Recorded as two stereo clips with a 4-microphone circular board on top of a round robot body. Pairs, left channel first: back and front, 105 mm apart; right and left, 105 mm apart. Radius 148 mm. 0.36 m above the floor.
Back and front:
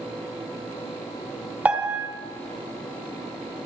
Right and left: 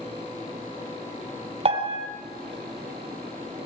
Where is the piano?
75° left, 3 m.